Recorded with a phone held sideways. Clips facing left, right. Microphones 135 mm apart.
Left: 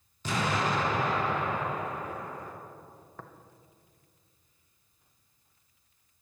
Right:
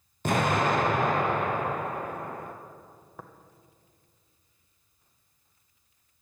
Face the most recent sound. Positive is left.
turn(degrees=-10)  # may be behind; listen again after turning